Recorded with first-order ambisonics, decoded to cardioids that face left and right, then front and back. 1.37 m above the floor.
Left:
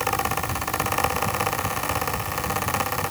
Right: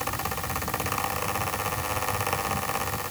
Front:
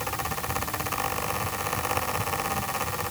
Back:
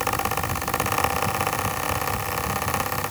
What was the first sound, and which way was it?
Only background noise.